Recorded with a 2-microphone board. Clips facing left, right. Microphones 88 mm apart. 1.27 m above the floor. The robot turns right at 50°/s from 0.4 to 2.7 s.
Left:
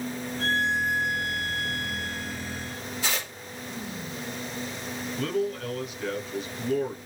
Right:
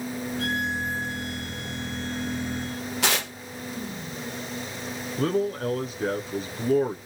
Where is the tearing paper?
85° right, 0.9 m.